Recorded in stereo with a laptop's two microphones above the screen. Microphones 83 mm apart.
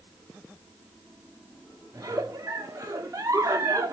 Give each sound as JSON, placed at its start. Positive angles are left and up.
{"t": 1.9, "sound": "a giggle", "side_deg": -35, "distance_m": 1.1}